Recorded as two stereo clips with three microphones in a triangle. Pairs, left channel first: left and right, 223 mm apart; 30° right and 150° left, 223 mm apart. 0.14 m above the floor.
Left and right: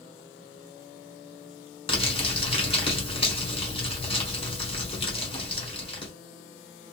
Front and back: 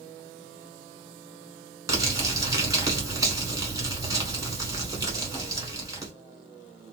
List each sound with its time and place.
1.9 s crumpling: 100° left, 1.5 m